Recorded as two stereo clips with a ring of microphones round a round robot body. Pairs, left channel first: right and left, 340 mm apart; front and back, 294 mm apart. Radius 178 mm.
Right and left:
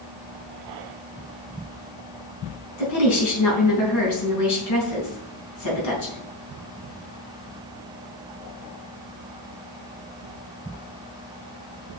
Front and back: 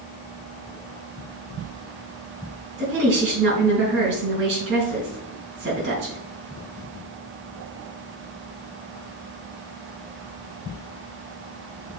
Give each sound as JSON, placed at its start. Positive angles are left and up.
{"t": 2.8, "sound": "a woman speaking", "azimuth_deg": -125, "distance_m": 4.0}